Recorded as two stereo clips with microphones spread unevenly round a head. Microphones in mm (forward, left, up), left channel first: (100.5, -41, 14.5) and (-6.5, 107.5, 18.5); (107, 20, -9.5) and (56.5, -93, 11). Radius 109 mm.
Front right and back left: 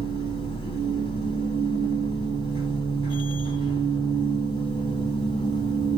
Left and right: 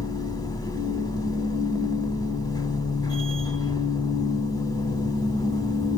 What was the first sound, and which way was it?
A machine running, 5° left.